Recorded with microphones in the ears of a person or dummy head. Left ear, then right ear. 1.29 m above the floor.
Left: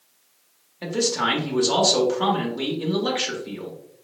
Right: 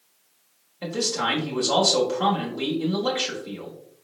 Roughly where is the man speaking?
Centre.